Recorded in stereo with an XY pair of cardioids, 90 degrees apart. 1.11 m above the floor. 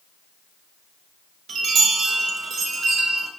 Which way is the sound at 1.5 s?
70° right.